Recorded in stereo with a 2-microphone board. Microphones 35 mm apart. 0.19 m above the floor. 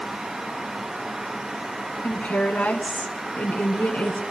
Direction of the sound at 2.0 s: 50° left (ahead or behind).